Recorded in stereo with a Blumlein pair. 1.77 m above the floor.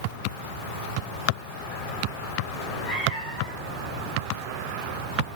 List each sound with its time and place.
2.5 s a cat meowing: 10° left, 3 m